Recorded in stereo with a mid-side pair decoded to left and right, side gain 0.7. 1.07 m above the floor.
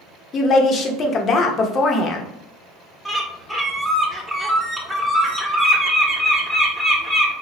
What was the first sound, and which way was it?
A woman speaking, 40° left.